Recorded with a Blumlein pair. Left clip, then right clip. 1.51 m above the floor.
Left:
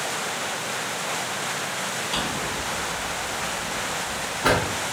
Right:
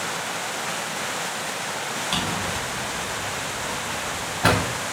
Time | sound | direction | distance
2.1 | a drawer | 30° right | 3 m